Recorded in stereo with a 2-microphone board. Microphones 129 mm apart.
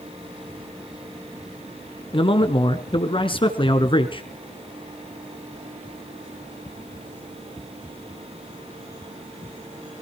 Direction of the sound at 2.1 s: 40° left (ahead or behind).